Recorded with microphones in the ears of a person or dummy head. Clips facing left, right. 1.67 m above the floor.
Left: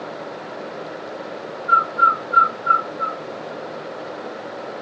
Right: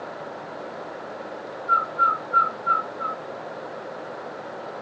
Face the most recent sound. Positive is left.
turn(degrees=40)  # may be behind; listen again after turning